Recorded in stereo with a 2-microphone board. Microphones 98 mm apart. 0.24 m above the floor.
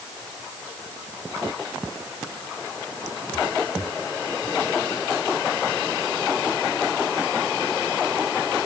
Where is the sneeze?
No sneeze in this recording.